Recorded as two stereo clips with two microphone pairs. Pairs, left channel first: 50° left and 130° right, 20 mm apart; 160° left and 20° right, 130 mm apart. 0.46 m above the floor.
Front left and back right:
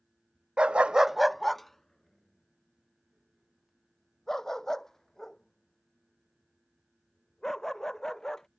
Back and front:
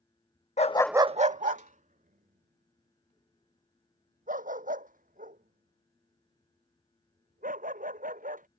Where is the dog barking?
165° right; by 8.4 s 20° right.